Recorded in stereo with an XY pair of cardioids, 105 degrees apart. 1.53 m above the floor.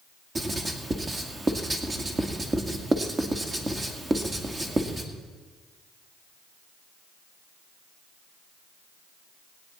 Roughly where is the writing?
Ahead right.